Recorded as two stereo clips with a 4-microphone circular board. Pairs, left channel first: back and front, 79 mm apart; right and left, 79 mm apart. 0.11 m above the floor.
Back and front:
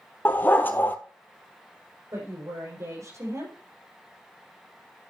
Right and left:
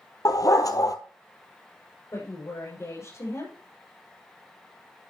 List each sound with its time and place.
0.2 s a dog barking: 120° right, 0.9 m
2.1 s a woman speaking: 45° right, 6.5 m